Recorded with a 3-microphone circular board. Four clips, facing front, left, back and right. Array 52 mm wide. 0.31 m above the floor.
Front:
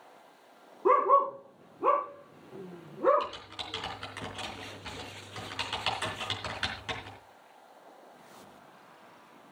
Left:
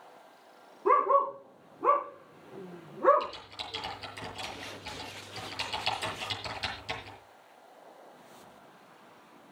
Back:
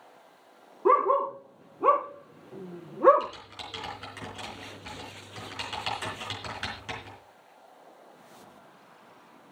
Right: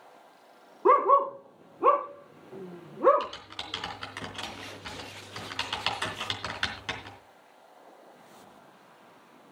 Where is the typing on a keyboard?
85° right, 4 m.